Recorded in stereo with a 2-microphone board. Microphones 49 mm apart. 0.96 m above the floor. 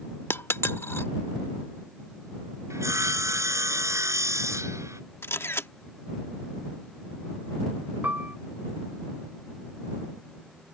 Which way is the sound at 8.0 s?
35° right (ahead or behind).